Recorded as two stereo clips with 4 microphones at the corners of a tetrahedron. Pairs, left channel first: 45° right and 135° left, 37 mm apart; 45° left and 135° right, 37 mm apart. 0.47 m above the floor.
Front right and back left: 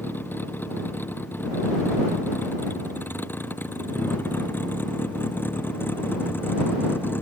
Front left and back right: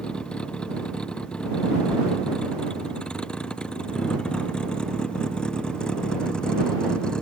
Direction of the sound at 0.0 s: 20° right.